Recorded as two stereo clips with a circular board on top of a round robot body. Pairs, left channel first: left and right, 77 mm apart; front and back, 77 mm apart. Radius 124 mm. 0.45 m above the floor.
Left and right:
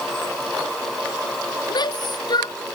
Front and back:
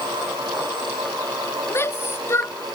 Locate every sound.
1.7 s a shout: 60° left